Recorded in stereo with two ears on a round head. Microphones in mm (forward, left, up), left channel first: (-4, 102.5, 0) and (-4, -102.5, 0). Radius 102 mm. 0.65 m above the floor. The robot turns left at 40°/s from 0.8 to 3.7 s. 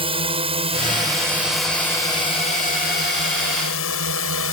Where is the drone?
25° right (ahead or behind); by 4.5 s 65° left (ahead or behind).